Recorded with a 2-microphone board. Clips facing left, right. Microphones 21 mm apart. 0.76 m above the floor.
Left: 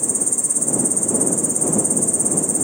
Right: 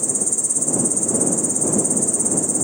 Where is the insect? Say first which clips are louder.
Even; 25° right (ahead or behind).